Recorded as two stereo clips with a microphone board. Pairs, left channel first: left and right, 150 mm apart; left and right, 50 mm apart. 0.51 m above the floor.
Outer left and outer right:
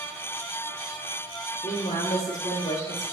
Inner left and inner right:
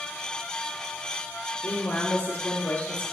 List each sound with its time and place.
1.6 s a woman speaking: 60° left (ahead or behind), 1.9 m; by 3.0 s 50° left (ahead or behind), 3 m